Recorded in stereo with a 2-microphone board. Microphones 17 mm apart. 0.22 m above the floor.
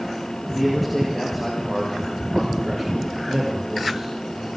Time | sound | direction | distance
0.5 | a man speaking | 10° left (ahead or behind) | 6 m